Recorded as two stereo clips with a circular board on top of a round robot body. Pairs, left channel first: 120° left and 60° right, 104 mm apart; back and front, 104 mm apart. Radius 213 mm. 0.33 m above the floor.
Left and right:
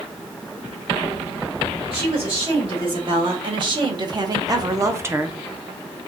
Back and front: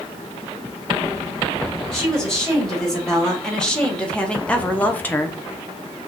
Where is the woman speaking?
95° right, 2.5 m; by 5.4 s 125° right, 0.9 m.